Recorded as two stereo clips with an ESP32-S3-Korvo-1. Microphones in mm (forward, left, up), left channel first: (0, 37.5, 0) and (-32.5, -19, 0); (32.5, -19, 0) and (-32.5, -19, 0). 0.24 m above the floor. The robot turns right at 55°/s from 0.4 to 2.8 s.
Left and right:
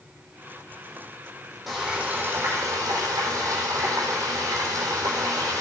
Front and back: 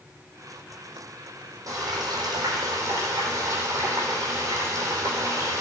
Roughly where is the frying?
Behind left.